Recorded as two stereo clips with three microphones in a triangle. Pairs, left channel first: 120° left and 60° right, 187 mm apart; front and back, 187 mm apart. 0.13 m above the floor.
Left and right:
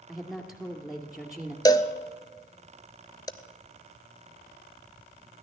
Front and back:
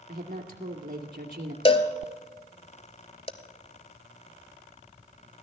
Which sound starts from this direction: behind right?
A woman speaking, at 0.1 s.